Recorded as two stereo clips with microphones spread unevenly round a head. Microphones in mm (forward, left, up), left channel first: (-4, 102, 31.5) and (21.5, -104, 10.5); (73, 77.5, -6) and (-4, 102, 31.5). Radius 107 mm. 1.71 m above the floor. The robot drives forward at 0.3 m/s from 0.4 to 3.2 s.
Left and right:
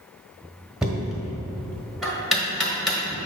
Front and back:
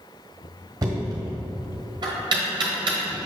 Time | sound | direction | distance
0.8 | knocking | 175° right | 0.9 m